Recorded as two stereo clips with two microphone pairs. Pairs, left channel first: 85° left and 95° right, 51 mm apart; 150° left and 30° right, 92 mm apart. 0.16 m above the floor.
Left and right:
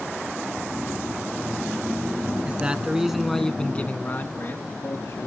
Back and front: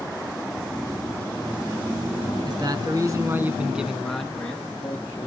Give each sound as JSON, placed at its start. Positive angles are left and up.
{"t": 2.5, "sound": "a man speaking", "azimuth_deg": -40, "distance_m": 1.7}